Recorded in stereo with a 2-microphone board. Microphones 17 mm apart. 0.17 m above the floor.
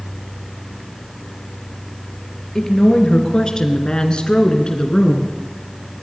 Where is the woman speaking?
35° left (ahead or behind), 3.5 m; by 5.3 s 40° left (ahead or behind), 2.5 m.